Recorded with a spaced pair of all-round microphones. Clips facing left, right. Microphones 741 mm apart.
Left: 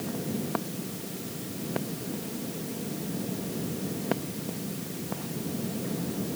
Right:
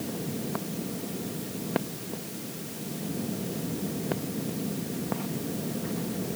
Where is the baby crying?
I don't hear a baby crying.